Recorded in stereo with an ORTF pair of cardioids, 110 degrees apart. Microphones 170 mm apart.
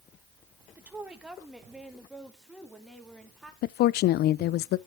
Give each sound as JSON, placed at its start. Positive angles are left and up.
{"t": 0.8, "sound": "a woman speaking", "azimuth_deg": -10, "distance_m": 1.6}
{"t": 3.6, "sound": "a woman speaking", "azimuth_deg": 70, "distance_m": 0.5}